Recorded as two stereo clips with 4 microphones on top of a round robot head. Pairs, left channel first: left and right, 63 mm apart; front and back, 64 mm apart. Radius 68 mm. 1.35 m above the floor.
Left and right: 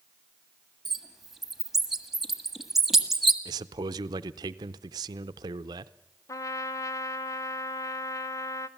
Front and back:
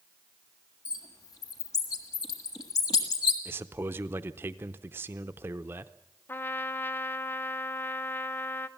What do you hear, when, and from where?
0.8 s a bird: 5° right, 1.5 m
3.5 s a man speaking: 115° right, 0.6 m
6.3 s a trumpet: 55° left, 0.7 m